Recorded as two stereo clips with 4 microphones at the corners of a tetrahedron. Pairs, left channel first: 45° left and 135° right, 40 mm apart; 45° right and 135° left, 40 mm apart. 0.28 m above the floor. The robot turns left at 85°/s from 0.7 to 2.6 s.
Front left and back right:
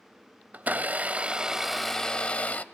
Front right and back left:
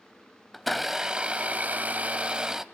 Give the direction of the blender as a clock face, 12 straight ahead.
4 o'clock.